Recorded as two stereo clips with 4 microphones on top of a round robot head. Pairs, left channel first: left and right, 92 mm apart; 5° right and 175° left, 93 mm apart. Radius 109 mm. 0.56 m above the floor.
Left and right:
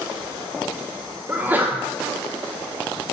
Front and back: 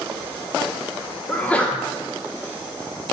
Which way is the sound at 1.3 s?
60° right.